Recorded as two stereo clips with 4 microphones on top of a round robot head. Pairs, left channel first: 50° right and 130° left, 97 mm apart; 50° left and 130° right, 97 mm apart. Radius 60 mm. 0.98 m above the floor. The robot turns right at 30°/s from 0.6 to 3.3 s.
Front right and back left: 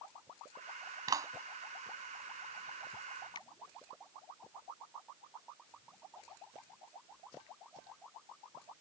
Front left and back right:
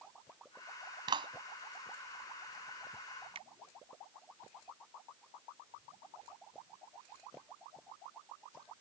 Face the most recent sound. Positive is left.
turn(degrees=-95)